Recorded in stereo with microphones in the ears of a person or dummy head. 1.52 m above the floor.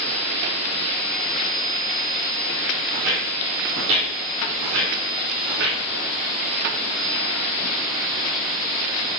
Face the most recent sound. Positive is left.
turn(degrees=-65)  # may be behind; listen again after turning